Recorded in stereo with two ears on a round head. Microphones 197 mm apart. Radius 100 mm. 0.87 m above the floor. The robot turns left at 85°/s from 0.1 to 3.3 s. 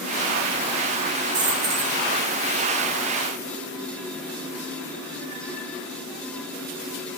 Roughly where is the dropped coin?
Right.